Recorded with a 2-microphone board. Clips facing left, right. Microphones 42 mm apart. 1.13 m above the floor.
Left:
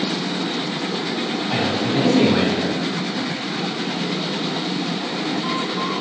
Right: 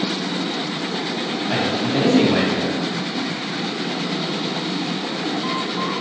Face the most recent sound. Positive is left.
turn(degrees=-45)  # may be behind; listen again after turning